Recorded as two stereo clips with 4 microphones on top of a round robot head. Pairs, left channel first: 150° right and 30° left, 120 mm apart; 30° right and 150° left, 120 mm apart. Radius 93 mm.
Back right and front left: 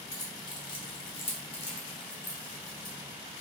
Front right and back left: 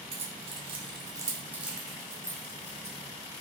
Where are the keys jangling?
155° left, 1.2 m; by 3.0 s 95° right, 1.6 m.